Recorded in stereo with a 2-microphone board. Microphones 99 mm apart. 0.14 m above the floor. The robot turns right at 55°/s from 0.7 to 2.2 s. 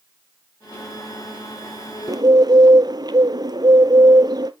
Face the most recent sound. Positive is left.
turn(degrees=-45)  # may be behind; listen again after turning